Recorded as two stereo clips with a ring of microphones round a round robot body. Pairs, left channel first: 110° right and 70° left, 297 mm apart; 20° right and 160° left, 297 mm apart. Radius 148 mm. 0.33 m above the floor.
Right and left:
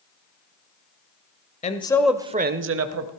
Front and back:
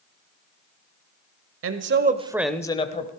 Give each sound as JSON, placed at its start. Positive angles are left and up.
{"t": 1.6, "sound": "a man speaking", "azimuth_deg": -175, "distance_m": 1.2}